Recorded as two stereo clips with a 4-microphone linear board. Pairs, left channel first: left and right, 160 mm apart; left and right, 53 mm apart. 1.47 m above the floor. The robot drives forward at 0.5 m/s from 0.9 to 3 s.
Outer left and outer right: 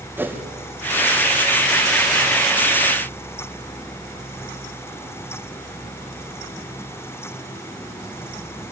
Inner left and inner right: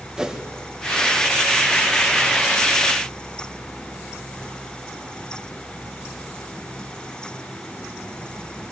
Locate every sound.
0.2 s a whoosh: 15° right (ahead or behind), 2.0 m